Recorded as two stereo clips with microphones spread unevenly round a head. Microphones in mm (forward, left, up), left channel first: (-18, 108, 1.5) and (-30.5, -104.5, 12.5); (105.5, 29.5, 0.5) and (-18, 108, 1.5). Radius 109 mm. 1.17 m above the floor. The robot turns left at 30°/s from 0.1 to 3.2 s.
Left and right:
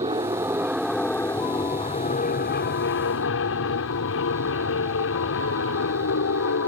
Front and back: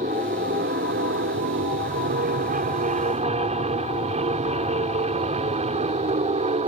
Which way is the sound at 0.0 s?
160° right.